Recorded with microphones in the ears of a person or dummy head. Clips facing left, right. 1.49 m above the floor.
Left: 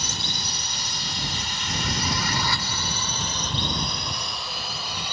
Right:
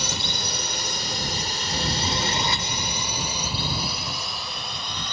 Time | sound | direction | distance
0.0 | a drone | 60° right (ahead or behind) | ?